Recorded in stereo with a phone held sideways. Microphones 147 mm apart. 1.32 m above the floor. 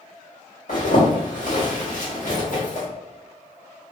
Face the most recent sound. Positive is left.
turn(degrees=65)  # may be behind; listen again after turning